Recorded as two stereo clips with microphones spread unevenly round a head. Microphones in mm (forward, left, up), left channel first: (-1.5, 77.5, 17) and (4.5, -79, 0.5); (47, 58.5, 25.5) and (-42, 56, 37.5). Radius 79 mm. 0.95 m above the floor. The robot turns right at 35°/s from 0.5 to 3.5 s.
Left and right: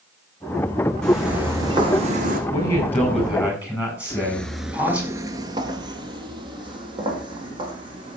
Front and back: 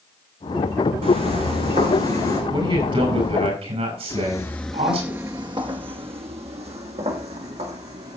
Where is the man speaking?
155° left, 7.5 m; by 5.1 s 170° right, 7.5 m.